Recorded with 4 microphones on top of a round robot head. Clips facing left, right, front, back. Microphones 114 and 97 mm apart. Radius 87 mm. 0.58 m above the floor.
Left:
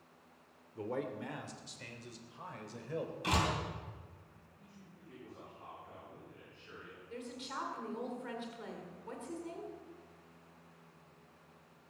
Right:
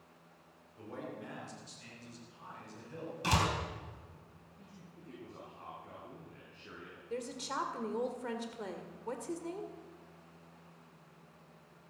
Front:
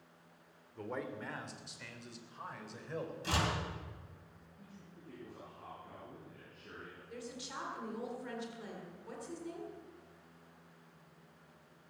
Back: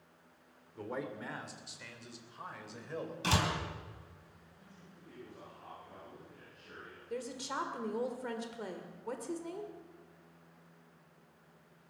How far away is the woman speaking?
About 1.9 m.